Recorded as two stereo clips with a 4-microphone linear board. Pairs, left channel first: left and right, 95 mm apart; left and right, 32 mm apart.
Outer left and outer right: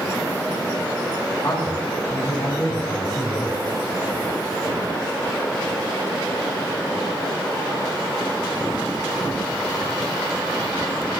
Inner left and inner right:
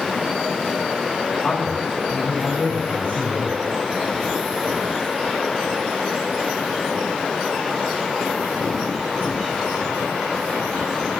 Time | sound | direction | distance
1.4 | a man speaking | 35° left (ahead or behind) | 2 m